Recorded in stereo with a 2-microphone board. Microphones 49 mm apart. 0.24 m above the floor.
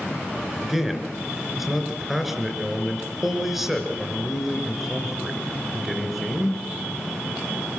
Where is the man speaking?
5° right (ahead or behind), 3.5 m.